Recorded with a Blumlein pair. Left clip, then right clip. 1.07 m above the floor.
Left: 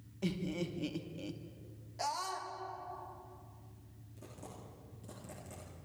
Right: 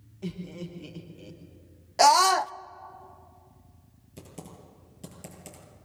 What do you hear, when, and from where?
0.2 s laughter: 15° left, 2.5 m
2.0 s a scream: 40° right, 0.5 m
4.2 s typing on a keyboard: 40° right, 8 m